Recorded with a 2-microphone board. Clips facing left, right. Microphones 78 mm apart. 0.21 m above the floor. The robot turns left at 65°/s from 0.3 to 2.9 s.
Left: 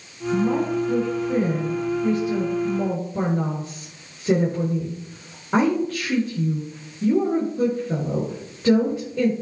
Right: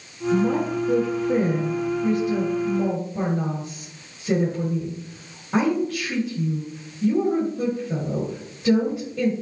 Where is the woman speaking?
60° right (ahead or behind), 3.5 m; by 9.3 s 50° left (ahead or behind), 3.5 m.